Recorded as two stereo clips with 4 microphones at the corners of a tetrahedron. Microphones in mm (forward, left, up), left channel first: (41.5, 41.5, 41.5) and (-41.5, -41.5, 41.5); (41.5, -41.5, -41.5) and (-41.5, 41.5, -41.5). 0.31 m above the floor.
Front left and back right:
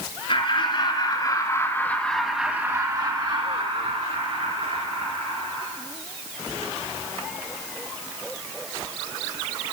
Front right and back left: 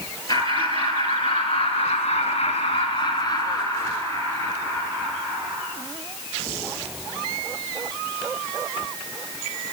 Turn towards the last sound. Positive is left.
turn(degrees=-130)